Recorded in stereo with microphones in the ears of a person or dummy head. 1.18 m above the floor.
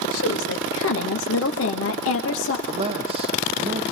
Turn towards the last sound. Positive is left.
turn(degrees=-30)  # may be behind; listen again after turning